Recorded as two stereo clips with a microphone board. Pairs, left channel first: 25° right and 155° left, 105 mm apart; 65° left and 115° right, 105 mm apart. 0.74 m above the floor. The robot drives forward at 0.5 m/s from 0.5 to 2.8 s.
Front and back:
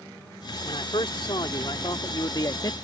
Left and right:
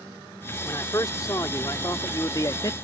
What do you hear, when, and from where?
0.6 s a man speaking: 10° left; by 2.7 s 25° left